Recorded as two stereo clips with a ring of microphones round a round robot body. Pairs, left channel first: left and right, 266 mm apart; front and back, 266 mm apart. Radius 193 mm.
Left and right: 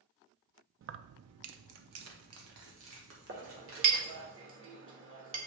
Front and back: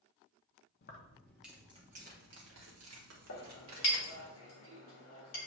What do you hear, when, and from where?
0.8 s keys jangling: 50° right, 0.5 m; by 4.3 s 145° right, 1.7 m
3.3 s a clink: 45° right, 1.6 m